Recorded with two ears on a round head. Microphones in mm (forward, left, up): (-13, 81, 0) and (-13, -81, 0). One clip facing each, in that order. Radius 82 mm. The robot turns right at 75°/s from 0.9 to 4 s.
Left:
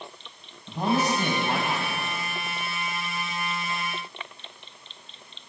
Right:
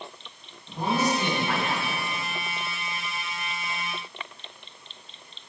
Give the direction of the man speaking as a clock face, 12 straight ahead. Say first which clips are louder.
Left 1 dB; 8 o'clock.